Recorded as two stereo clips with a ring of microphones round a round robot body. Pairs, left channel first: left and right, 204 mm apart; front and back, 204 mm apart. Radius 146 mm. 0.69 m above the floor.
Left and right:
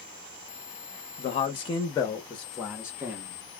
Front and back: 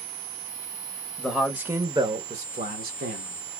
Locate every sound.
1.2 s a man speaking: 80° left, 0.9 m; by 3.6 s 160° right, 1.3 m